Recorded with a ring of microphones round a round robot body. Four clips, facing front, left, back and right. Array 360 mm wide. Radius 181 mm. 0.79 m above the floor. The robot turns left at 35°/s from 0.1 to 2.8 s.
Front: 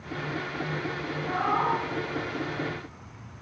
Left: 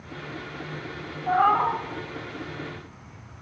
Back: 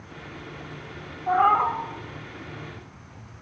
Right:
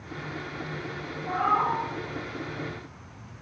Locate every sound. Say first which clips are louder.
1.3 s a cat meowing: left 4 dB, back 7 dB; 140° left, 1.3 m; by 1.8 s 120° left, 1.3 m